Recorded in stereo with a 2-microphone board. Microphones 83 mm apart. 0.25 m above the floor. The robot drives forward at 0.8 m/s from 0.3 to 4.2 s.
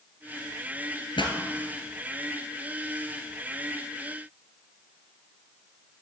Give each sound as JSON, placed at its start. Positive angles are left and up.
{"t": 1.2, "sound": "a pop", "side_deg": 80, "distance_m": 1.4}